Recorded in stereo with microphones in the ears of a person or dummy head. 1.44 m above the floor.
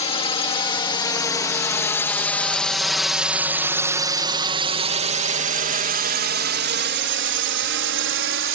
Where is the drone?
30° left (ahead or behind); by 8.6 s 70° right (ahead or behind).